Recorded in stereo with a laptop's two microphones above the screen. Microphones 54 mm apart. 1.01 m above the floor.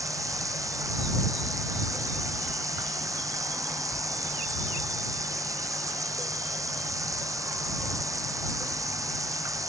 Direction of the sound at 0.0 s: 90° right.